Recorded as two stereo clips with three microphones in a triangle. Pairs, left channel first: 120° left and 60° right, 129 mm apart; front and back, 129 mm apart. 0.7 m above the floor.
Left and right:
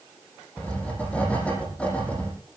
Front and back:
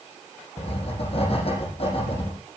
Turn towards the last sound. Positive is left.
turn(degrees=40)